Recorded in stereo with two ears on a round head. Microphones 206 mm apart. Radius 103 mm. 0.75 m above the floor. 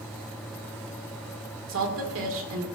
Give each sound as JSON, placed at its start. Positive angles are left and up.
{"t": 1.7, "sound": "a woman speaking", "side_deg": -60, "distance_m": 2.0}